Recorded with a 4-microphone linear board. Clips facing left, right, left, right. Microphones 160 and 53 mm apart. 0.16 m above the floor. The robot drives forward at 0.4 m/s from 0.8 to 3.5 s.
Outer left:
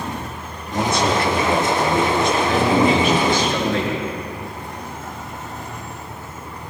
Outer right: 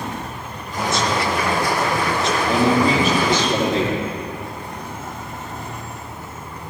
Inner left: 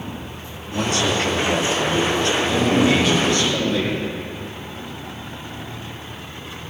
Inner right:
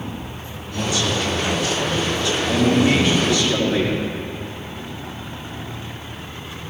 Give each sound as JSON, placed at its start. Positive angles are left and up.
{"t": 0.7, "sound": "a man speaking", "side_deg": 55, "distance_m": 3.0}
{"t": 2.5, "sound": "a man speaking", "side_deg": -40, "distance_m": 4.5}